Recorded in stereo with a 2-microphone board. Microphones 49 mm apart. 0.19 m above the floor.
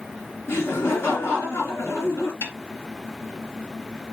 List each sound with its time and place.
0.5 s laughter: 65° left (ahead or behind), 3 m
2.4 s a snare drum: 60° left (ahead or behind), 1.9 m